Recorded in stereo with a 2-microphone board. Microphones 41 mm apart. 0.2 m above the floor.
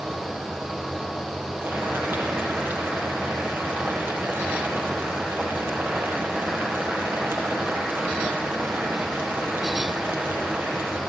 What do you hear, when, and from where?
1.6 s boiling: 60° right (ahead or behind), 5.5 m